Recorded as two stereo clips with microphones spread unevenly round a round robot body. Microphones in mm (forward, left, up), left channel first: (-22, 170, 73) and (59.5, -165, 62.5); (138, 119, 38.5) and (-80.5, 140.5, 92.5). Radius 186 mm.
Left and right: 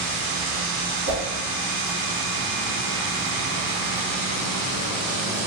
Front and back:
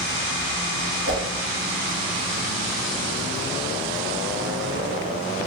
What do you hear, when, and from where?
1.1 s a whoosh: 140° left, 1.7 m